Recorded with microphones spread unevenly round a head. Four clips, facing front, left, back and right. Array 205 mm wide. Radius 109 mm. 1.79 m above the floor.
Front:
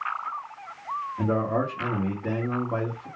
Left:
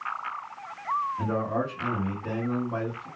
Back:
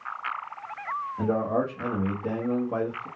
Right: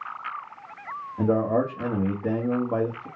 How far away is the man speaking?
About 1.3 m.